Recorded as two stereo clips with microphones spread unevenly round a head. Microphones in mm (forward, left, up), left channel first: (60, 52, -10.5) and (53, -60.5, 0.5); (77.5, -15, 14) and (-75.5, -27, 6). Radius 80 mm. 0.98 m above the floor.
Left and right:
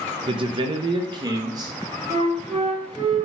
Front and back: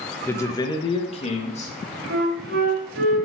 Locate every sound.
0.3 s a man speaking: 70° right, 1.0 m; by 2.0 s 35° right, 2 m
2.1 s a flute: 155° right, 2.5 m